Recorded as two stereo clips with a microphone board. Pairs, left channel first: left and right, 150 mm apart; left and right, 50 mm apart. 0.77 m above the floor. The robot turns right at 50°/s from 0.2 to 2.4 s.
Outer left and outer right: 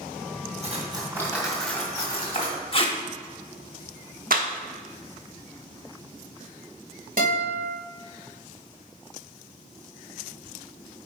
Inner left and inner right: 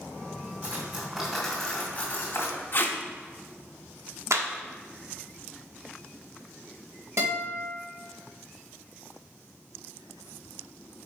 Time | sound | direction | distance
0.6 | cutlery clinking | 45° right | 2.5 m
2.7 | tape being pulled | 40° left (ahead or behind) | 1.0 m
4.3 | a clap | 75° right (ahead or behind) | 1.0 m
7.2 | a guitar | 65° right (ahead or behind) | 3 m